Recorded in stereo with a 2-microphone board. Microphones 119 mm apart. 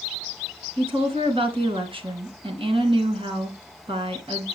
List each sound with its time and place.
0.8 s a woman speaking: 50° right (ahead or behind), 2.5 m